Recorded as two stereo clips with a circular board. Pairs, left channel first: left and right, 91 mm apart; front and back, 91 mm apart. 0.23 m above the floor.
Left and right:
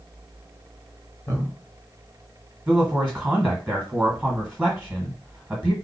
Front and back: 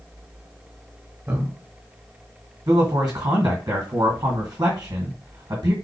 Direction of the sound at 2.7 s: 165° right.